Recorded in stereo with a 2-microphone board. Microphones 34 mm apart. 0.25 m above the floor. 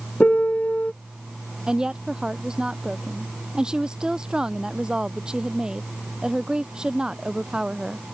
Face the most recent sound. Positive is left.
turn(degrees=-25)  # may be behind; listen again after turning